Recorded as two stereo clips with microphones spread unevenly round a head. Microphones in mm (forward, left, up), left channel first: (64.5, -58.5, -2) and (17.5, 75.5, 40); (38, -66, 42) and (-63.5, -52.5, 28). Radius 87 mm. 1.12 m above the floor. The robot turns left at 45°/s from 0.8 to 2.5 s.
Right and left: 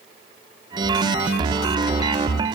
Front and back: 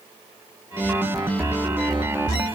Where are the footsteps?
I don't hear footsteps.